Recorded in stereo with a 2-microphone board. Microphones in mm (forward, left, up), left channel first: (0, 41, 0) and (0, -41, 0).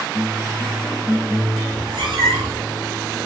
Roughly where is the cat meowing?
Right.